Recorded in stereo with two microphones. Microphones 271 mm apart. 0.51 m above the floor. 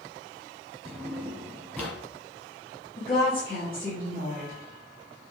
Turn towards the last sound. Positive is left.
turn(degrees=35)  # may be behind; listen again after turning